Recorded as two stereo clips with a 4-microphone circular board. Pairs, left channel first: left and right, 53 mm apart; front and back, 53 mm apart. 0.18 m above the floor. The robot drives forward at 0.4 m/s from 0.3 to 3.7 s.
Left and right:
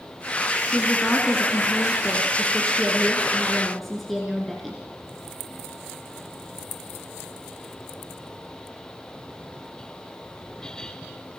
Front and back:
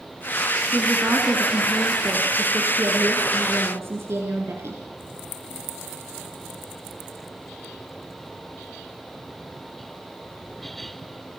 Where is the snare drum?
No snare drum in this recording.